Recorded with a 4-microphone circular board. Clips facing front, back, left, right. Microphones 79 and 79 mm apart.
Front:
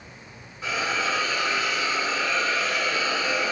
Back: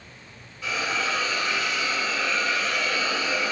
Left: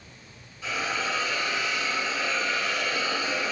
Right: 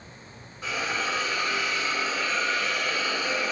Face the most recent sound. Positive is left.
turn(degrees=-50)